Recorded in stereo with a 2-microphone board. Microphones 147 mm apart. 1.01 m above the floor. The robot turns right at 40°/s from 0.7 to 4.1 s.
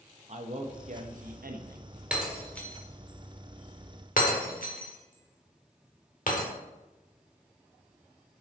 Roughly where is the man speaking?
Behind right.